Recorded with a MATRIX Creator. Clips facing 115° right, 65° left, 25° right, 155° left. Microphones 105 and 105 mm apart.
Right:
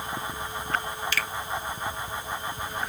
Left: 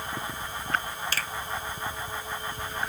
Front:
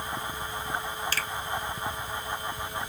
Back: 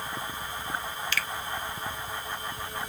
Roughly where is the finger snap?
Ahead.